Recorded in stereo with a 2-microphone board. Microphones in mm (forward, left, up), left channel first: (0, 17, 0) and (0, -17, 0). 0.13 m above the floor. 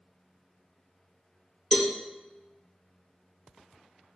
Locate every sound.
1.7 s a cowbell: 20° left (ahead or behind), 0.5 m